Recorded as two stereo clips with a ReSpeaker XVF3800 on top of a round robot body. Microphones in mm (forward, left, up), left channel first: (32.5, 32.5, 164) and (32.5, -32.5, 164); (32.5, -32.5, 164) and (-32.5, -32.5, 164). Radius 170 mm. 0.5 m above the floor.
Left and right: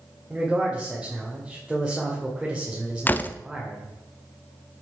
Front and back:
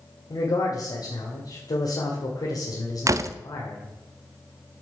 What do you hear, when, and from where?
0.3 s a man speaking: 10° right, 2 m
3.1 s a door slam: 150° left, 0.7 m